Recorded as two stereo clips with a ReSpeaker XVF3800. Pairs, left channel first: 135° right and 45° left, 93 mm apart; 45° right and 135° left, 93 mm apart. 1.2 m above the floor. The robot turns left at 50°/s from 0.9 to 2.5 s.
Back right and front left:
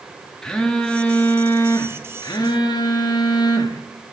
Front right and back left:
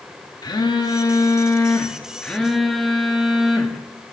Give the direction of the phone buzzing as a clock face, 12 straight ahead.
2 o'clock.